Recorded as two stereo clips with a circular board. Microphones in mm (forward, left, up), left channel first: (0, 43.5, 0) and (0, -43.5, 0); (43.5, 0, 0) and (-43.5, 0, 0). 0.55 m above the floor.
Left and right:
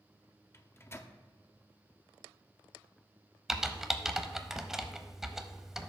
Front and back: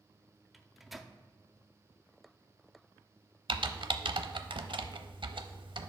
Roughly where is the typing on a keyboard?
Behind.